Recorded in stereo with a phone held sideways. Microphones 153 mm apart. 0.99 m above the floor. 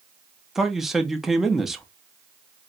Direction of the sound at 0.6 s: Centre (ahead or behind).